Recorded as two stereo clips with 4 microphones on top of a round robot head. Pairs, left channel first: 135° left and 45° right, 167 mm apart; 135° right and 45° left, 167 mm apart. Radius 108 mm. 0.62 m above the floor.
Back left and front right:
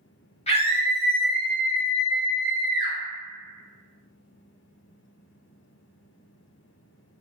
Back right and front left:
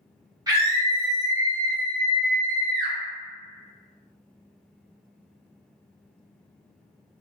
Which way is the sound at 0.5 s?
105° left.